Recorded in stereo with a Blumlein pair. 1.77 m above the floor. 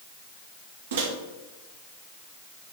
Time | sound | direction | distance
0.9 | a microwave | 60° right | 1.9 m